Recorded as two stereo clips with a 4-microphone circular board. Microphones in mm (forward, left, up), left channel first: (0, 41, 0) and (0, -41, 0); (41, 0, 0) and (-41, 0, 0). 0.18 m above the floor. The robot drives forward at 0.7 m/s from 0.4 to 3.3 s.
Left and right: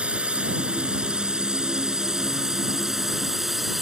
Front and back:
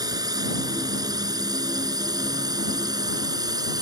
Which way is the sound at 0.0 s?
165° right.